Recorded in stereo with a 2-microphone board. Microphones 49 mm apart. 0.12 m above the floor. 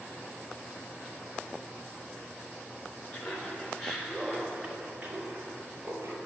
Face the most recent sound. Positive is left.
turn(degrees=-50)  # may be behind; listen again after turning